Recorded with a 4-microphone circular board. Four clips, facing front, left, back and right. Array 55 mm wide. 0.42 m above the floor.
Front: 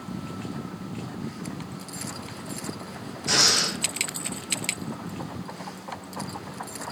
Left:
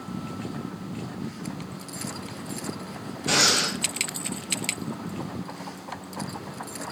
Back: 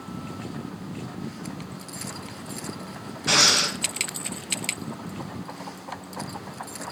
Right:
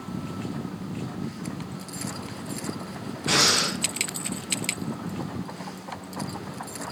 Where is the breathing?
160° right, 0.6 m.